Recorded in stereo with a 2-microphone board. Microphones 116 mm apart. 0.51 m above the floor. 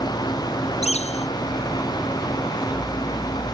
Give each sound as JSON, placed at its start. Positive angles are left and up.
{"t": 0.8, "sound": "a bird", "side_deg": 80}